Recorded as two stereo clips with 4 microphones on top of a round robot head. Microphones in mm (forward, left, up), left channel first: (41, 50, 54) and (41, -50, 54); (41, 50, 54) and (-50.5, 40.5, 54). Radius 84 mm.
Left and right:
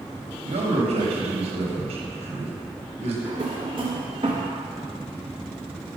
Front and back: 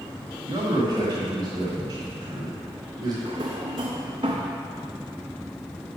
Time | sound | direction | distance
0.5 | a man speaking | 120° right | 1.1 m
3.2 | a drawer | 130° right | 0.5 m